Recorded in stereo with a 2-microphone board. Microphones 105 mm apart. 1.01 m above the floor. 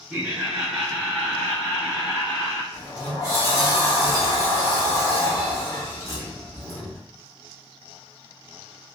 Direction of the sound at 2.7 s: 30° left (ahead or behind).